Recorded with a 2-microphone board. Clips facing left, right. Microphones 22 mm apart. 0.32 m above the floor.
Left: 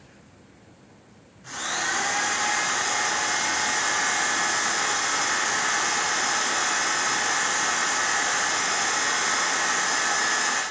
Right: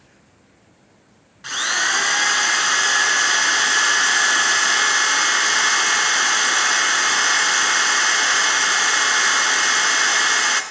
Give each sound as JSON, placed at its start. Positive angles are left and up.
{"t": 1.4, "sound": "a drill", "side_deg": -60, "distance_m": 2.0}